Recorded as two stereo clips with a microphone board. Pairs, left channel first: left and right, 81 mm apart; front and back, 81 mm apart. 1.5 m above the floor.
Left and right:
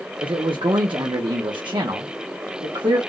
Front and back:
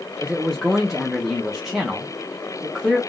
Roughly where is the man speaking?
Right.